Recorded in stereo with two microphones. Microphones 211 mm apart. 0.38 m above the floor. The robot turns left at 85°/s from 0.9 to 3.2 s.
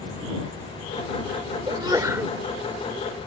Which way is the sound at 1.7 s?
20° right (ahead or behind).